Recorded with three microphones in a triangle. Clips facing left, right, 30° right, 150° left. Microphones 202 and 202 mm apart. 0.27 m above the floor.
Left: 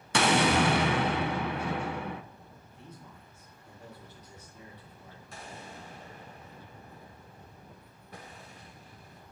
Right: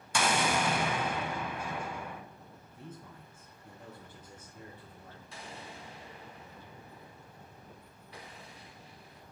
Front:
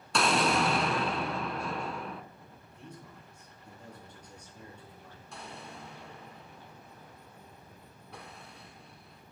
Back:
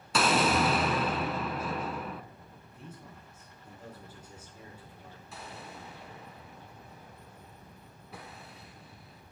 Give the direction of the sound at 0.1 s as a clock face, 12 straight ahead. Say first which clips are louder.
Left 6 dB, back 1 dB; 10 o'clock.